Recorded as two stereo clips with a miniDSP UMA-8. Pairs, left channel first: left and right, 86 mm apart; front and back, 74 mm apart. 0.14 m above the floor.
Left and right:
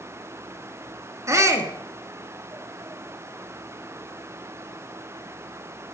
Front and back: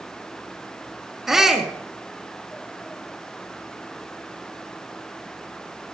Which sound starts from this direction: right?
A shout, at 1.3 s.